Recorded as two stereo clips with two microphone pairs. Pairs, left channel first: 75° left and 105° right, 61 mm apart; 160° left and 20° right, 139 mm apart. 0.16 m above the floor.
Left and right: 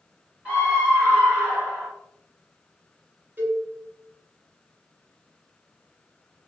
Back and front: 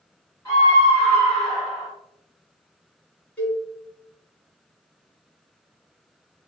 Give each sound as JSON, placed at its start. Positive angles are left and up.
{"t": 0.5, "sound": "a scream", "azimuth_deg": -150, "distance_m": 1.9}
{"t": 3.4, "sound": "a cowbell", "azimuth_deg": -130, "distance_m": 1.1}